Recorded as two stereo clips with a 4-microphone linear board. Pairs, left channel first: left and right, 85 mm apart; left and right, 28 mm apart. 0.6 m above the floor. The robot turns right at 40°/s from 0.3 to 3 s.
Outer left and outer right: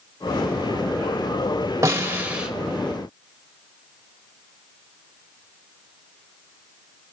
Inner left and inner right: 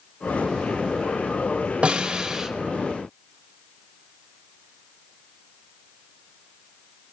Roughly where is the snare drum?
Right.